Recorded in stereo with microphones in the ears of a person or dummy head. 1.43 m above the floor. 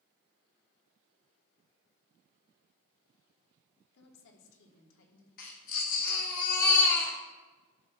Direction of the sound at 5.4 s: 45° left (ahead or behind).